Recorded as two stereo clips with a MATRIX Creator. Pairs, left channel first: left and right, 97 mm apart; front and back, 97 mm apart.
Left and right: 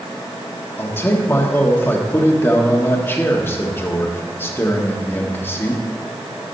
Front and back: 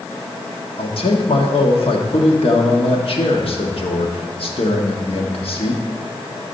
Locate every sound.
0.8 s a man speaking: 25° left, 1.5 m